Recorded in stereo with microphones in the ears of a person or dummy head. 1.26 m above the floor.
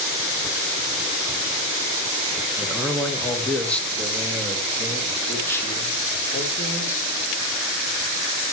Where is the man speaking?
5° right (ahead or behind), 1.4 m; by 7.1 s 20° left (ahead or behind), 4 m.